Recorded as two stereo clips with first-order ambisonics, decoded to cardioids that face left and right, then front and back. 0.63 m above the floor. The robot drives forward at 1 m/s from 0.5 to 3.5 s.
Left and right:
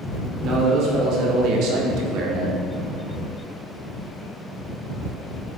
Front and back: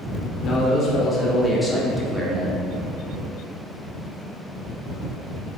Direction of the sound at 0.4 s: 50° right.